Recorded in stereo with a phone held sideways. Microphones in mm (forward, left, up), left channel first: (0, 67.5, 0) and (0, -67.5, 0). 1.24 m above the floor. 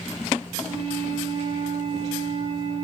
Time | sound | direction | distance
0.6 | a flute | 40° right (ahead or behind) | 5 m